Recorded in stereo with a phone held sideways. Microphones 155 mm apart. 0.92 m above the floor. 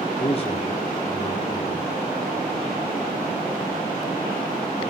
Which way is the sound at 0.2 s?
40° left (ahead or behind).